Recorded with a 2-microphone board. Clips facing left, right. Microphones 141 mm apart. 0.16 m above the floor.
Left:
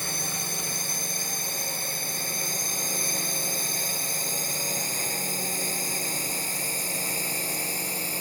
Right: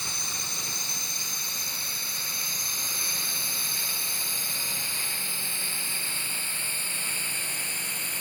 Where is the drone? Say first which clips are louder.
Left 6 dB; 55° left (ahead or behind); by 8.2 s 35° left (ahead or behind).